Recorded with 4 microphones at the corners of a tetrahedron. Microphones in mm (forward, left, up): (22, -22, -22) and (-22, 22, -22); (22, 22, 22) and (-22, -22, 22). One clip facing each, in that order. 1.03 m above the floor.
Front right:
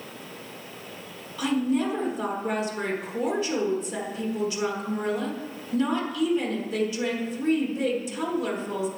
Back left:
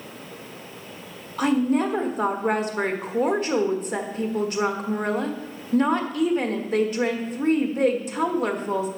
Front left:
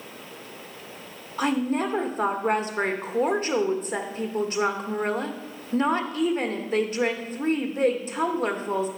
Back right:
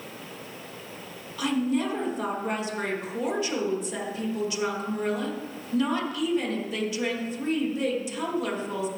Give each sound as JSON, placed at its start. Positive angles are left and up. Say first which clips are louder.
{"t": 1.4, "sound": "a woman speaking", "louder": "back left 4 dB, front left 1 dB", "azimuth_deg": 90, "distance_m": 1.1}